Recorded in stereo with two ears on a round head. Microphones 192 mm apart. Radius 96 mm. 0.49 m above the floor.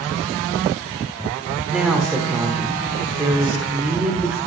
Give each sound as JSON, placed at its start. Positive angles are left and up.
{"t": 1.7, "sound": "a woman speaking", "side_deg": -5, "distance_m": 1.3}